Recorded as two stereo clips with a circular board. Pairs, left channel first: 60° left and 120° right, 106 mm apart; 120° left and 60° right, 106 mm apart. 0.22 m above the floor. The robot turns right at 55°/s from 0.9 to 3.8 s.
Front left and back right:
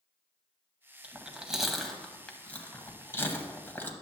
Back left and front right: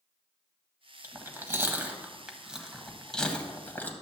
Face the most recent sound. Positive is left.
turn(degrees=85)